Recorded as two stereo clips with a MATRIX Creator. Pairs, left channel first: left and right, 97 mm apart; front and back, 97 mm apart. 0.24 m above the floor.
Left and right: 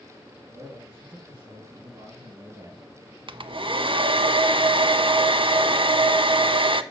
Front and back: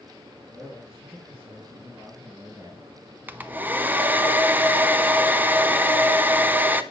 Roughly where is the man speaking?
Behind right.